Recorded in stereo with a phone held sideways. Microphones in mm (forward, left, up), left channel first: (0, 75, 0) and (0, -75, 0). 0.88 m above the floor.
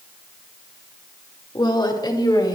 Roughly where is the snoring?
No snoring in this recording.